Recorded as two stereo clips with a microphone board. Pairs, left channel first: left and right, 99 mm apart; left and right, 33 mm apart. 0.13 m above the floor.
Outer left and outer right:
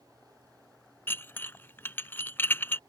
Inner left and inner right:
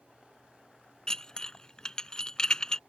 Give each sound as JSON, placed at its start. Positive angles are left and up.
{"t": 1.1, "sound": "dishes clattering", "side_deg": 20}